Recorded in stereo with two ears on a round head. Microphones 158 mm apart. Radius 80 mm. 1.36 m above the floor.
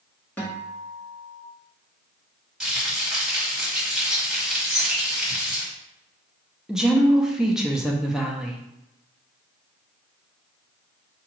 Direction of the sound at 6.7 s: 5° right (ahead or behind).